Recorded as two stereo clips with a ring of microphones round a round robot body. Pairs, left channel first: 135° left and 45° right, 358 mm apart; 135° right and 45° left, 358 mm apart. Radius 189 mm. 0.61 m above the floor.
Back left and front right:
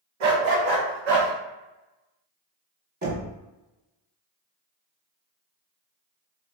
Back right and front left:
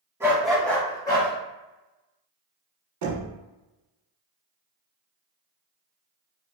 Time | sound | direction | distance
0.2 | a dog barking | 40° right | 1.1 m
3.0 | knocking | 20° left | 1.6 m